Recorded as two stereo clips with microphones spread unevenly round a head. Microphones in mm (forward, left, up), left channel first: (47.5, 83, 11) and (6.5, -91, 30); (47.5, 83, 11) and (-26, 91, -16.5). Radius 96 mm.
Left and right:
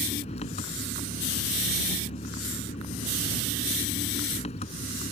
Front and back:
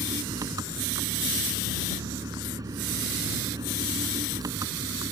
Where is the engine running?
135° left.